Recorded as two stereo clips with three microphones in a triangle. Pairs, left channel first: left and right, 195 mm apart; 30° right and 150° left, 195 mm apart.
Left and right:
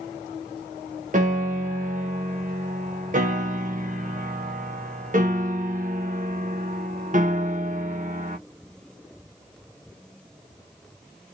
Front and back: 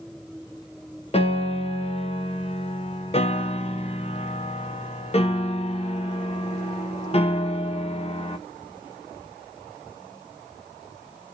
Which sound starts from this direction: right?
A piano, at 1.1 s.